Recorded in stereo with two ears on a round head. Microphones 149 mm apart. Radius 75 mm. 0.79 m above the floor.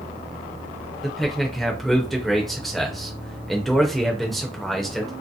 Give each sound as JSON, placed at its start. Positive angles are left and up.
{"t": 1.0, "sound": "a man speaking", "side_deg": 0, "distance_m": 0.6}